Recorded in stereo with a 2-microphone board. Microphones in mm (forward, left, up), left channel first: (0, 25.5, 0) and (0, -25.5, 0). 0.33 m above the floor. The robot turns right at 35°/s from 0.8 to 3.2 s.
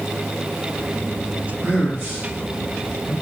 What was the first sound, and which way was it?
A man speaking, 40° right (ahead or behind).